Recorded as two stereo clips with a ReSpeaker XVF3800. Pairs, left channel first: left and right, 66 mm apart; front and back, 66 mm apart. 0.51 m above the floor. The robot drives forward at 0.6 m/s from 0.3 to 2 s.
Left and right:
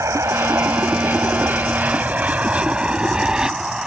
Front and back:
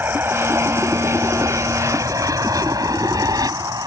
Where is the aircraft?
130° right; by 3.9 s 175° right.